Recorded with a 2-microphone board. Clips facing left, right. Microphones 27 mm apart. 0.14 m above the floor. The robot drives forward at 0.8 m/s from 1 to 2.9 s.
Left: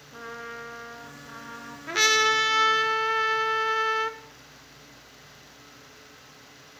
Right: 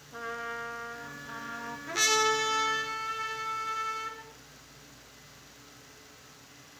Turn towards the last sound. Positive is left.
turn(degrees=40)  # may be behind; listen again after turning